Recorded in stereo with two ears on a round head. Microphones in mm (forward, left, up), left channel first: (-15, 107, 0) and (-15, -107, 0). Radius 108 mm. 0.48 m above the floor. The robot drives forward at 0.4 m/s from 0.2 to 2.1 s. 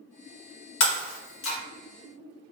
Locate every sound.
0.8 s breaking glass: 50° left (ahead or behind), 1.0 m; by 1.6 s 60° left (ahead or behind), 0.9 m